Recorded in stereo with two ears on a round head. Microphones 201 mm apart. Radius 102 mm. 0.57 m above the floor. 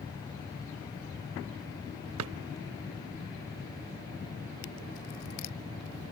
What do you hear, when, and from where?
2.2 s a drawer: 70° right (ahead or behind), 0.5 m